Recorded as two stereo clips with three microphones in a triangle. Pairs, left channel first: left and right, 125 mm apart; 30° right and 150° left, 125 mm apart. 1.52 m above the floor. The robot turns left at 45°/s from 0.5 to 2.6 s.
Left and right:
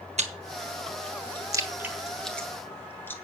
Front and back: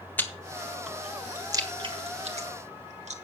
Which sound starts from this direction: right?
Chewing, at 0.2 s.